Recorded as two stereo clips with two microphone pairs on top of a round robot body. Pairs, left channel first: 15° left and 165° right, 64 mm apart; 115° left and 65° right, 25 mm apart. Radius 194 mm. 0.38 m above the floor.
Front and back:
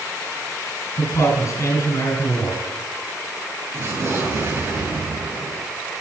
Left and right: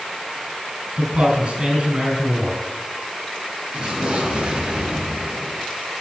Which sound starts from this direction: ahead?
A man speaking, at 1.0 s.